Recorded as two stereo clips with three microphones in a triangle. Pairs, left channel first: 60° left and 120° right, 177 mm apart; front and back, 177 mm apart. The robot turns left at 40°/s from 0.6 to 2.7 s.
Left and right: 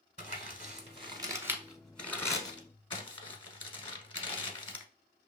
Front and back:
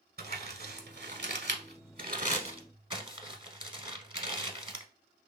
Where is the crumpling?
160° right, 0.7 m; by 4.8 s 115° left, 0.7 m.